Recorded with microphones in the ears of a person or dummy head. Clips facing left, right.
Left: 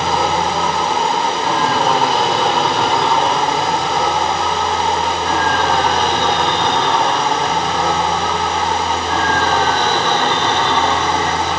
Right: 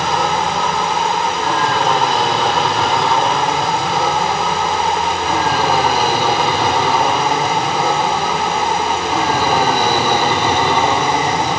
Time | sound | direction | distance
0.0 | an aircraft | 5° left (ahead or behind) | ?